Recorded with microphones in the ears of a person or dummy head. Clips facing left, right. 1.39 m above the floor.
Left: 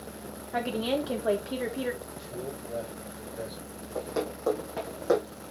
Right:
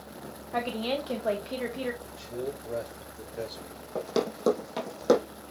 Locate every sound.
0.5 s a woman speaking: 5° left (ahead or behind), 2.5 m
2.0 s a man speaking: 50° right (ahead or behind), 4.5 m
4.0 s running footsteps: 55° right (ahead or behind), 3 m